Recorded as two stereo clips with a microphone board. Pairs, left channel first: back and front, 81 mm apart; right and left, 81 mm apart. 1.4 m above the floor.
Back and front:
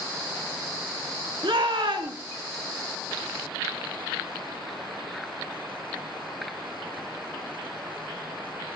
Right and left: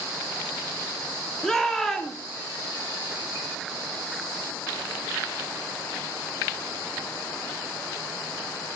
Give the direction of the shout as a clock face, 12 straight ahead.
12 o'clock.